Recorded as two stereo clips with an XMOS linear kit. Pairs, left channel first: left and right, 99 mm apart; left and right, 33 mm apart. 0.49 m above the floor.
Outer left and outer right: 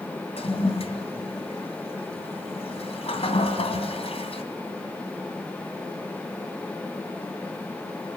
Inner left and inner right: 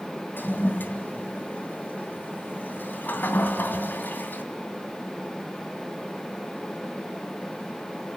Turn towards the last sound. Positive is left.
turn(degrees=80)